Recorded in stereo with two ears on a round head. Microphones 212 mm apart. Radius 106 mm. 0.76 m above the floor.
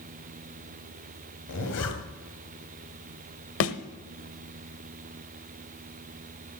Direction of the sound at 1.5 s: 75° left (ahead or behind).